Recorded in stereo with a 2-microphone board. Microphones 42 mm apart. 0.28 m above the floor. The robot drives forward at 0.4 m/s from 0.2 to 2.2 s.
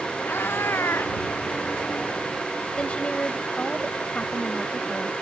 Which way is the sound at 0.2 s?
75° left (ahead or behind).